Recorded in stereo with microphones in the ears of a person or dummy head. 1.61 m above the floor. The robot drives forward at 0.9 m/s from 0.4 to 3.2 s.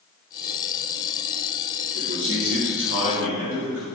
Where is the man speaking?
60° right (ahead or behind), 3 m; by 3.9 s 75° right (ahead or behind), 3 m.